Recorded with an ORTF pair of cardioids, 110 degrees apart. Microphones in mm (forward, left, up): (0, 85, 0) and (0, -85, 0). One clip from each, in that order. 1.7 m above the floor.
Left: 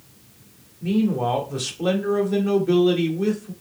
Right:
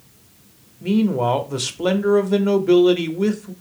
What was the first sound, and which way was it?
A man speaking, 25° right.